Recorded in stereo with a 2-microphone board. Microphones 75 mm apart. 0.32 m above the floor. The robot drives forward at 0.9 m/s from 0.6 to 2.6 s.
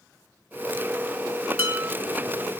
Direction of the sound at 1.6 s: 25° right (ahead or behind).